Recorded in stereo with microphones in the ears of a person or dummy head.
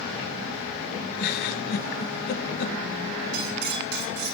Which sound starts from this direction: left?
A giggle, at 1.2 s.